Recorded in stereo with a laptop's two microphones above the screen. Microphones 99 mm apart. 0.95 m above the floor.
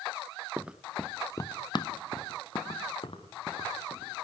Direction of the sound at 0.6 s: 20° right (ahead or behind).